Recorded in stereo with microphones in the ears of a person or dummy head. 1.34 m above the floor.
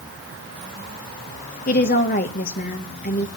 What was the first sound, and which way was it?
A woman speaking, 45° left (ahead or behind).